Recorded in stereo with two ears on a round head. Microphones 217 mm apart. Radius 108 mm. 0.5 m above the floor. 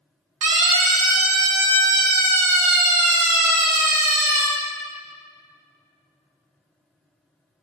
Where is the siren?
75° right (ahead or behind), 4.5 m; by 4.5 s 65° right (ahead or behind), 8.5 m.